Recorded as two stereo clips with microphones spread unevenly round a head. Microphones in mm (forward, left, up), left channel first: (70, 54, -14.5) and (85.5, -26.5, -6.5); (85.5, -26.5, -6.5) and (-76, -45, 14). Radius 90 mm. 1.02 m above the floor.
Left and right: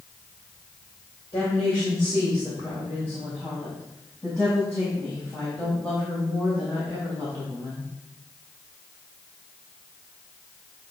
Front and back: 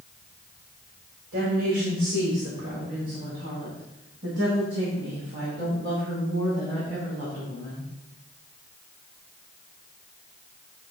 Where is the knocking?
No knocking in this recording.